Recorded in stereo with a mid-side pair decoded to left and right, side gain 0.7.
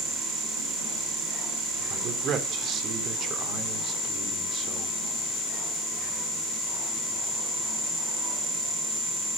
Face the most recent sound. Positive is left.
turn(degrees=-45)